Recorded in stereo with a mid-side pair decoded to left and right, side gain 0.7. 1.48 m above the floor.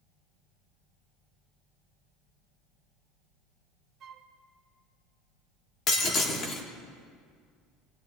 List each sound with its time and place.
4.0 s a flute: 45° right, 1.0 m
5.9 s breaking glass: 40° left, 2 m